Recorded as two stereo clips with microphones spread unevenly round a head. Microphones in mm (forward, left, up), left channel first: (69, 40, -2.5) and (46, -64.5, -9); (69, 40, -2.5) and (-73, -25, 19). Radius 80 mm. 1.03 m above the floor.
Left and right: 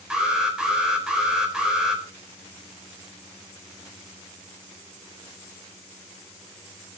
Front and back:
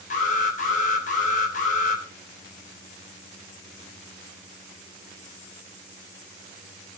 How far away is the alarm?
About 4 m.